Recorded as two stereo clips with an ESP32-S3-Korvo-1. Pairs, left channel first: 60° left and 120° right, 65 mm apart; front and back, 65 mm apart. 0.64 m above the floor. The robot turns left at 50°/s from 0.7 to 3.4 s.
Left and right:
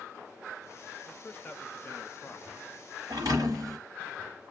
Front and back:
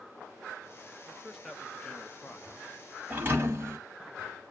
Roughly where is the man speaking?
Left.